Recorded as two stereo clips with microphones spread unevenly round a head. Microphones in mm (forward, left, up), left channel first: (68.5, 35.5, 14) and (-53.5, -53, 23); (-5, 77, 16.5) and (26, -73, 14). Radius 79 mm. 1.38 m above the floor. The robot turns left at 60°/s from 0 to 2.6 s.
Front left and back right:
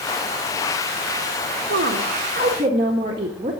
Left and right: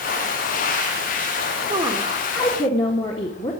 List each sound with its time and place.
1.7 s a woman speaking: 150° right, 1.7 m; by 3.5 s 160° left, 1.7 m